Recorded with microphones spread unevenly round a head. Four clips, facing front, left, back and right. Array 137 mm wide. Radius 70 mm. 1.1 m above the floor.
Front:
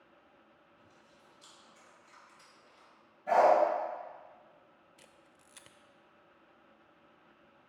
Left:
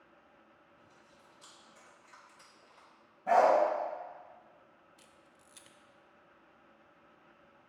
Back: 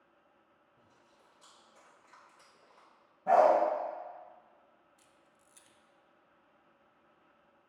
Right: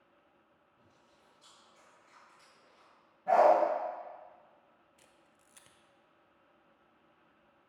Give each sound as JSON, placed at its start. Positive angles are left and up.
{"t": 0.8, "sound": "chewing", "azimuth_deg": 155, "distance_m": 2.0}
{"t": 3.3, "sound": "a dog barking", "azimuth_deg": 175, "distance_m": 3.0}
{"t": 5.0, "sound": "a camera shutter", "azimuth_deg": 0, "distance_m": 0.6}